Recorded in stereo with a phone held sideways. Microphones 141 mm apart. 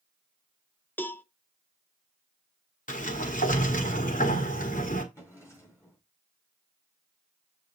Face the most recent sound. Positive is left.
turn(degrees=20)  # may be behind; listen again after turning